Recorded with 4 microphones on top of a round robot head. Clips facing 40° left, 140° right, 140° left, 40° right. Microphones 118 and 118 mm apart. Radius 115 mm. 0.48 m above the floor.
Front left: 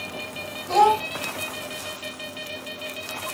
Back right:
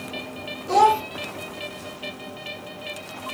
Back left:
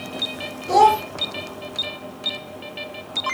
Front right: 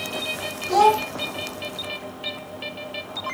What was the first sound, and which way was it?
A child speaking, 150° left.